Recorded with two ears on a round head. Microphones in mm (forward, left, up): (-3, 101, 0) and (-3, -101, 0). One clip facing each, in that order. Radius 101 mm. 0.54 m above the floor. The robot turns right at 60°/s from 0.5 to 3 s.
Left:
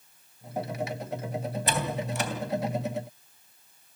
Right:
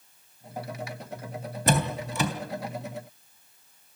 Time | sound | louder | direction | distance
1.7 | a door slam | right 6 dB | 40° right (ahead or behind) | 3 m